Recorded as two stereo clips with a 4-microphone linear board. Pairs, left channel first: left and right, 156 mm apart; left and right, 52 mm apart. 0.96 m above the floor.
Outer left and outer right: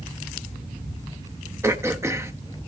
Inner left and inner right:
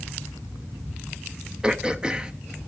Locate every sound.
1.6 s throat clearing: 20° right (ahead or behind), 0.6 m